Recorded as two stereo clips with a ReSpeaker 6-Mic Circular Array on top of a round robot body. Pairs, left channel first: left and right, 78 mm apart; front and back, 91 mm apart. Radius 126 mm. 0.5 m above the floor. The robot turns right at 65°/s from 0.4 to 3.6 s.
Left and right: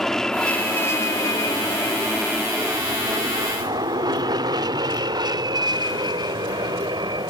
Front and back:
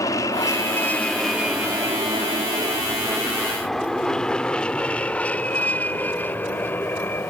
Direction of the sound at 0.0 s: 10° left.